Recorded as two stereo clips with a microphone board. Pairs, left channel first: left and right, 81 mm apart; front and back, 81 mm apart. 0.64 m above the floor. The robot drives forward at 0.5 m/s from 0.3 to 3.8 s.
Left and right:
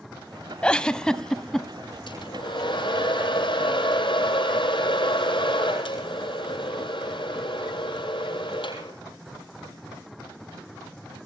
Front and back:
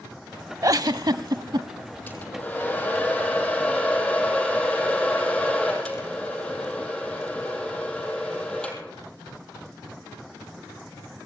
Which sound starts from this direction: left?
A hair dryer, at 2.1 s.